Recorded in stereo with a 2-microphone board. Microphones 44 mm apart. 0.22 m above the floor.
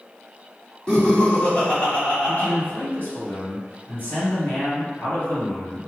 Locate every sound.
0.9 s laughter: 15° left (ahead or behind), 1.6 m; by 2.5 s 30° left (ahead or behind), 1.4 m
2.3 s a man speaking: 40° left (ahead or behind), 1.8 m